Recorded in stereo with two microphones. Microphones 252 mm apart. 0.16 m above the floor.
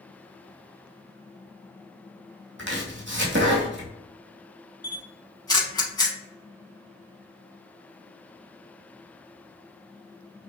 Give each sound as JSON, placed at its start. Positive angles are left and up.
{"t": 2.6, "sound": "chopping", "side_deg": -55, "distance_m": 1.0}
{"t": 4.8, "sound": "a camera shutter", "side_deg": 20, "distance_m": 0.7}